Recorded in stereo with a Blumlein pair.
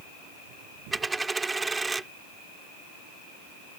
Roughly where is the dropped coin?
Ahead.